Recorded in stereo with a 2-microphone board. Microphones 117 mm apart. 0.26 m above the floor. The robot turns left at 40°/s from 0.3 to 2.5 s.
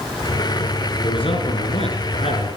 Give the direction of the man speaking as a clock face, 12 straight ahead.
8 o'clock.